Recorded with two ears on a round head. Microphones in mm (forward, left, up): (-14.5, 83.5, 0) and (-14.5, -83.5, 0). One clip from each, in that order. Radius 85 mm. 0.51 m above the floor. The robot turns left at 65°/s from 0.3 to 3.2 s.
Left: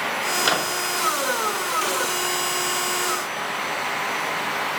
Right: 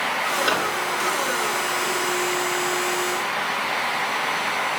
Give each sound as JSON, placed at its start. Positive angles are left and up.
{"t": 0.4, "sound": "a microwave", "side_deg": 40, "distance_m": 1.0}